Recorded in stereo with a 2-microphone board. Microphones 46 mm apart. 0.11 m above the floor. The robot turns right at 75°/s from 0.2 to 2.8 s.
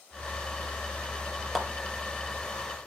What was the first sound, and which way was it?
A clap, centre (ahead or behind).